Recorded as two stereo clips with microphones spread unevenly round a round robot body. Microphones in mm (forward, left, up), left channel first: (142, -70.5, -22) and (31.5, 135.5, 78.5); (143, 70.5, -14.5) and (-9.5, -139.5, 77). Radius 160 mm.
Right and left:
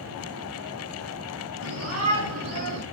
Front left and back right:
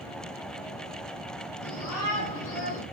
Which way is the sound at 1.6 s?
95° left.